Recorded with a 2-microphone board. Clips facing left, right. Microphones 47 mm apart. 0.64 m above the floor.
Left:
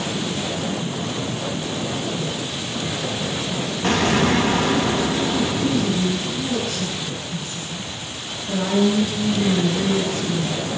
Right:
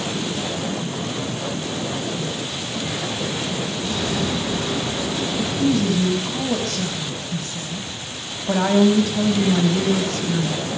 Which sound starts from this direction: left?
An explosion, at 3.8 s.